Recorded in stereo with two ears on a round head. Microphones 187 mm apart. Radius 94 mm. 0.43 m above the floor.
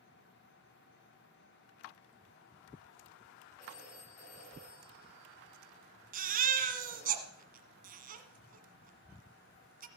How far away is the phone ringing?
About 7.5 m.